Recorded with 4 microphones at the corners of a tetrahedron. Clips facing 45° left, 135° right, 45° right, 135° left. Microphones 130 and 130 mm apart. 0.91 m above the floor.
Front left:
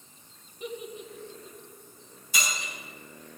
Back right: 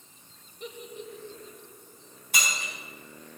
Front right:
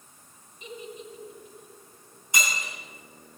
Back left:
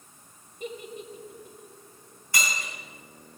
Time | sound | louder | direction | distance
0.6 | a giggle | front left 3 dB, back left 3 dB | 130° left | 1.4 m
2.3 | breaking glass | back right 1 dB, front right 1 dB | 115° right | 4.5 m